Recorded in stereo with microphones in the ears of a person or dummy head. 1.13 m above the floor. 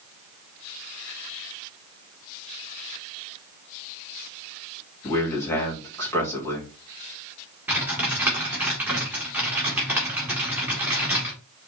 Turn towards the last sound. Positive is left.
turn(degrees=-10)  # may be behind; listen again after turning